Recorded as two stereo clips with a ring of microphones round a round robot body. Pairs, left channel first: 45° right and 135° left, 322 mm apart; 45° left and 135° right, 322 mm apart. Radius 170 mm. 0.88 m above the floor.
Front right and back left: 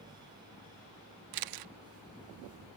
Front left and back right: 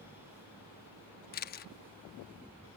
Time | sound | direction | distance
1.3 | a camera shutter | 110° left | ?